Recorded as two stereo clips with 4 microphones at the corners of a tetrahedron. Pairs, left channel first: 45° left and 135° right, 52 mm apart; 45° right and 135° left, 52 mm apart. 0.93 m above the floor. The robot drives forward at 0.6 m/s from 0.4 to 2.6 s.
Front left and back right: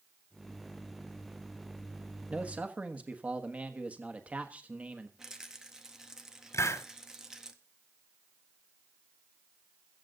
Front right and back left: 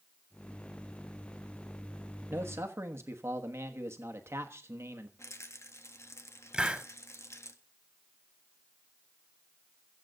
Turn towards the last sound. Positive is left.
turn(degrees=60)